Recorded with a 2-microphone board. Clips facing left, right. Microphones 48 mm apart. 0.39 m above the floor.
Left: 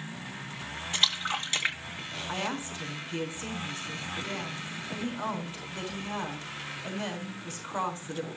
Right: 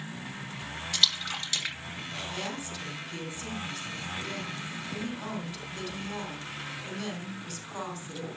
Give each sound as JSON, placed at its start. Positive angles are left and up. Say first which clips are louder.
{"t": 0.9, "sound": "a splash", "louder": "left 1 dB", "side_deg": 25, "distance_m": 2.0}
{"t": 2.3, "sound": "a woman speaking", "louder": "left 6 dB", "side_deg": 30, "distance_m": 4.5}